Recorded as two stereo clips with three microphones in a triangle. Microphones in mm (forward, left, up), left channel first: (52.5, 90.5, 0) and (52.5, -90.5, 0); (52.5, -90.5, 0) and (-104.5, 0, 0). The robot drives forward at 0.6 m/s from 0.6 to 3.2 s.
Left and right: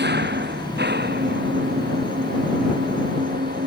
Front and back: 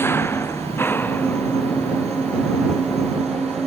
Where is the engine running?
105° right; by 3.7 s 115° right.